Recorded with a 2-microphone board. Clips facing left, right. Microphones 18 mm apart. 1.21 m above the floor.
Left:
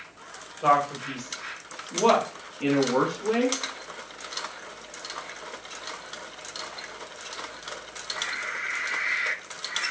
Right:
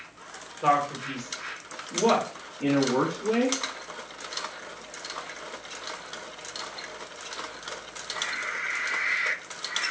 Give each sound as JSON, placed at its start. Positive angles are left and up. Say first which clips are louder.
{"t": 0.6, "sound": "a man speaking", "louder": "left 2 dB", "side_deg": 5, "distance_m": 1.2}